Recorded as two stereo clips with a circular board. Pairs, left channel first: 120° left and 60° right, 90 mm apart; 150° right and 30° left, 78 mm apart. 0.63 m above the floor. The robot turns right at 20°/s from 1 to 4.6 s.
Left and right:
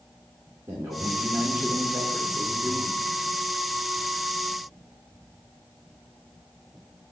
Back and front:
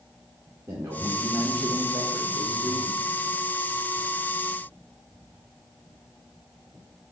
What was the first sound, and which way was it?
A man speaking, 10° right.